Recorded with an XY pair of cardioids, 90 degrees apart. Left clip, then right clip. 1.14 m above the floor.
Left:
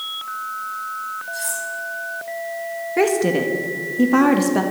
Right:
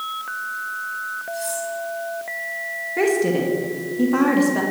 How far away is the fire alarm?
I don't hear a fire alarm.